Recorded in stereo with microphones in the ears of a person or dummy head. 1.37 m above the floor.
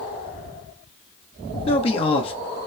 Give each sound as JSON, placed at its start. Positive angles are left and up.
{"t": 1.7, "sound": "a man speaking", "side_deg": 25, "distance_m": 0.7}